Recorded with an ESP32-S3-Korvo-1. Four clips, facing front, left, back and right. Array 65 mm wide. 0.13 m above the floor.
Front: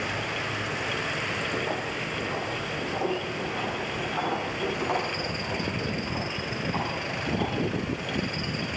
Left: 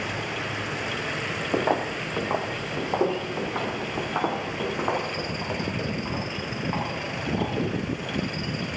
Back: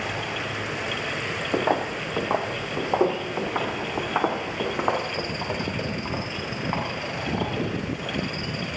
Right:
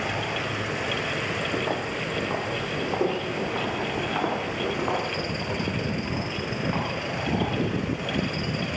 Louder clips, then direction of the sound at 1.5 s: Left 3 dB, back 6 dB; 135° left.